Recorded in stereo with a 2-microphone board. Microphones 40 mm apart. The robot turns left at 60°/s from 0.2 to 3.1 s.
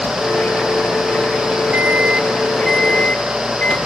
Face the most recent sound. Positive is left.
turn(degrees=145)